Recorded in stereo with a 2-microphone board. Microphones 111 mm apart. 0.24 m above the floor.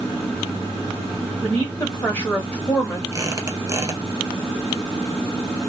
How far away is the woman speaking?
About 1.2 m.